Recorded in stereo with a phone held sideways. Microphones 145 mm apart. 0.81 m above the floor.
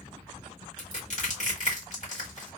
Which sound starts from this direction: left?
Crushing, at 0.8 s.